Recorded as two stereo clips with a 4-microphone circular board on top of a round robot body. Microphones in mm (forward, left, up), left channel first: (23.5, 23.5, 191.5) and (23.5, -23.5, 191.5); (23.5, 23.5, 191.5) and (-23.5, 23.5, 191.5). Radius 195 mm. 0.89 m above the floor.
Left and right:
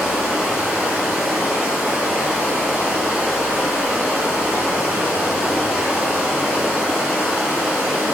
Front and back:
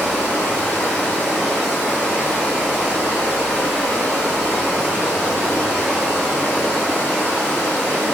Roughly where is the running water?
Right.